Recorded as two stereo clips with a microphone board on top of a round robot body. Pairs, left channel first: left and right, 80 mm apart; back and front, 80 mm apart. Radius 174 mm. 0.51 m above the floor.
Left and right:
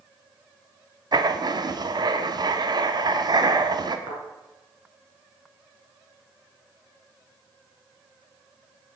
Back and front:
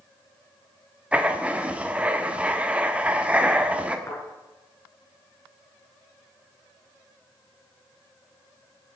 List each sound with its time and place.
1.1 s writing: 70° right, 1.4 m
4.1 s a thud: 120° right, 5 m